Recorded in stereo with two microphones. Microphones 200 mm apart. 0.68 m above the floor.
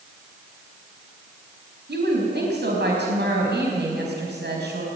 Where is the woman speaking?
65° right (ahead or behind), 5 m.